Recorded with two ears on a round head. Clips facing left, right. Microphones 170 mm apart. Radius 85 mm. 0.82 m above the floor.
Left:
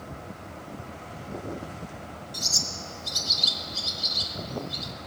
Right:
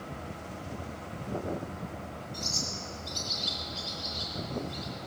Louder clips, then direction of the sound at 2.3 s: Even; 65° left (ahead or behind).